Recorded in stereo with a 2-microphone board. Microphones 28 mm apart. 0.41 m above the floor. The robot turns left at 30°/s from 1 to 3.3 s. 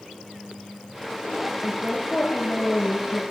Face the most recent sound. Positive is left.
turn(degrees=80)